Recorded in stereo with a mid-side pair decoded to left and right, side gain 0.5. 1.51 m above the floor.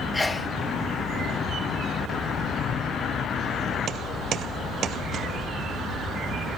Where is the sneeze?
15° left, 1.6 m.